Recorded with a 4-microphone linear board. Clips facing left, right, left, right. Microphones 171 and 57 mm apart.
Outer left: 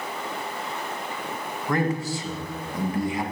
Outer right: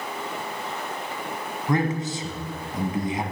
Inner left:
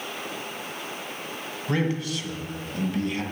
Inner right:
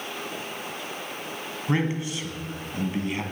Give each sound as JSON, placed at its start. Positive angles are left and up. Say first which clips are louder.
{"t": 1.7, "sound": "a man speaking", "louder": "outer right 1 dB, even", "side_deg": -20, "distance_m": 1.1}